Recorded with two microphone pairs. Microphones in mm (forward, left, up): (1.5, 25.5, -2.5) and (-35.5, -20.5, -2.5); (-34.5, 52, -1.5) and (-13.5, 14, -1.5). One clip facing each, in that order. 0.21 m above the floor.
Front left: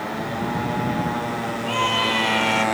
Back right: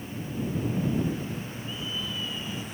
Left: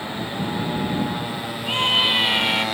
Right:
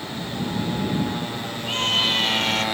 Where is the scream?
55° left.